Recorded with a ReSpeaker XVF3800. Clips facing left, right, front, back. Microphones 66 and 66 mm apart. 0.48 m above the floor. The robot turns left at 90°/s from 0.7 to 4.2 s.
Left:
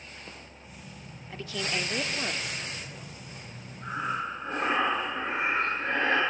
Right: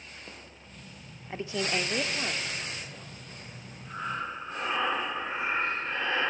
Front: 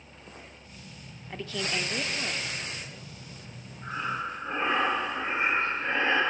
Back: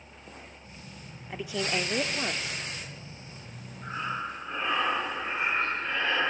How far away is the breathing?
About 6.5 m.